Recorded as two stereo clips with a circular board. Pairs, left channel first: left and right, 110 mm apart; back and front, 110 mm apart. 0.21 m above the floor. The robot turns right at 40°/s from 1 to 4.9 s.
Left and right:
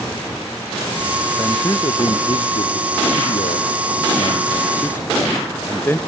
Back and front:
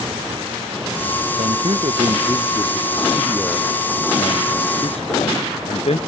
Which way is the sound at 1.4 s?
20° left.